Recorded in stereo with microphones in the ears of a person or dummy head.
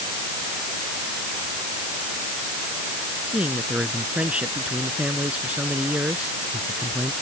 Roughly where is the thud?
I don't hear a thud.